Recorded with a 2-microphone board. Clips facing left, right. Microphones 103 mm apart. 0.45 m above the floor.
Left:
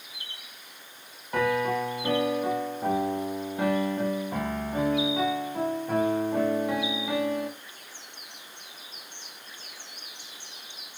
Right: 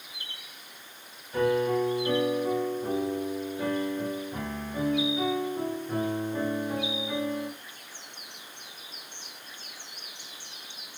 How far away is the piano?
About 0.7 m.